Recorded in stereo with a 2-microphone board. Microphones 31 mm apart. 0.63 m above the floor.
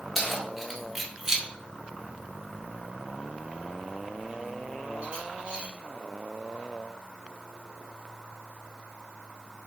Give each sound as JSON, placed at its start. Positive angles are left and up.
{"t": 0.1, "sound": "keys jangling", "side_deg": 5, "distance_m": 1.2}